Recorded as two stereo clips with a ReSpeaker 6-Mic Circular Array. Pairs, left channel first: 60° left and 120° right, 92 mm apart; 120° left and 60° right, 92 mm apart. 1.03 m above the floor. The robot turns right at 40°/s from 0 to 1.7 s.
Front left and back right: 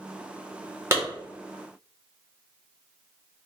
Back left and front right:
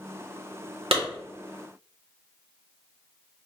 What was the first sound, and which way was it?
A clap, 60° right.